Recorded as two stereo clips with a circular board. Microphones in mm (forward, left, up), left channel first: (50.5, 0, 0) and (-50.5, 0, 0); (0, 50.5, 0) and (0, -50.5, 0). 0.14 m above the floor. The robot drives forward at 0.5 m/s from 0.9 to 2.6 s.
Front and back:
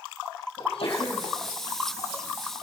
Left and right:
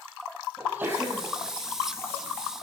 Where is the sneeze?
25° right, 5.5 m.